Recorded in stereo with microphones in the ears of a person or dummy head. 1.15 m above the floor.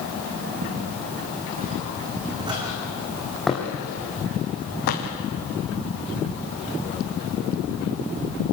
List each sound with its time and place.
0.6 s footsteps: 55° right (ahead or behind), 4.5 m; by 5.1 s 50° left (ahead or behind), 2.5 m